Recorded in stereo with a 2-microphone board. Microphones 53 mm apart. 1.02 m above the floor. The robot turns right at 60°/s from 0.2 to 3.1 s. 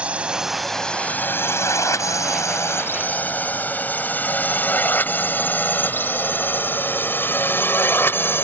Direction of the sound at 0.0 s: 20° right (ahead or behind).